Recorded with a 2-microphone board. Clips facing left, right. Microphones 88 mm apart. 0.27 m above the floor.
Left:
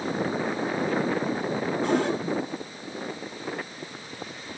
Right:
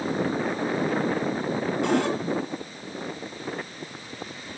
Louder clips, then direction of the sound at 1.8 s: Even; 80° right.